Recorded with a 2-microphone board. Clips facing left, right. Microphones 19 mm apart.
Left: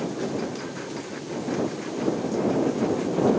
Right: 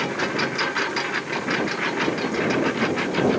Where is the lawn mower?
60° right (ahead or behind).